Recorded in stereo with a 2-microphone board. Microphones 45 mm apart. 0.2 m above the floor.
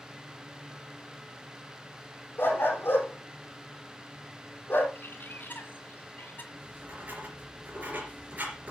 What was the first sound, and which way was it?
A dog barking, 50° left (ahead or behind).